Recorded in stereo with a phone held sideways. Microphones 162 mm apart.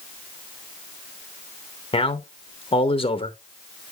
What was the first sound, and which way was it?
A man speaking, 35° left (ahead or behind).